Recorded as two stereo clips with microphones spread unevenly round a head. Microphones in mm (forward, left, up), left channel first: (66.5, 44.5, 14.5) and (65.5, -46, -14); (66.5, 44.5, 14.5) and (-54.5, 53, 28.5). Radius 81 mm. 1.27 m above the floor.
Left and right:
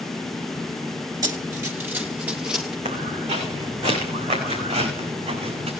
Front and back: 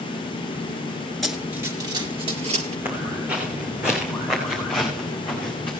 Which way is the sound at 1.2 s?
110° right.